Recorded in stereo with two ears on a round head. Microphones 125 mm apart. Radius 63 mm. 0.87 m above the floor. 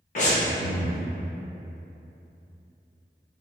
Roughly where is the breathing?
Left.